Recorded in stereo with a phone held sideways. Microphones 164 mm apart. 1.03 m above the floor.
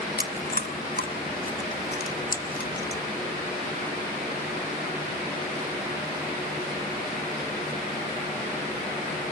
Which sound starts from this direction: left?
Chewing, at 0.2 s.